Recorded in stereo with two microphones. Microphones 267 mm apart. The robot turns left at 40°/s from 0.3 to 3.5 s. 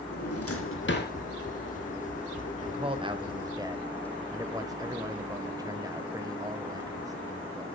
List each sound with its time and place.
0.1 s a drawer: 70° left (ahead or behind), 1.9 m; by 1.1 s 35° left (ahead or behind), 1.9 m
2.6 s a man speaking: 20° right (ahead or behind), 1.1 m; by 7.7 s 15° right (ahead or behind), 1.1 m